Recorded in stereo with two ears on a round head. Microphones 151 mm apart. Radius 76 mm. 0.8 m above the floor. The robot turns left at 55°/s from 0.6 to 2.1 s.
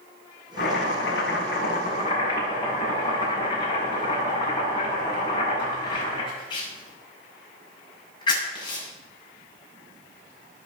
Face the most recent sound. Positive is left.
turn(degrees=30)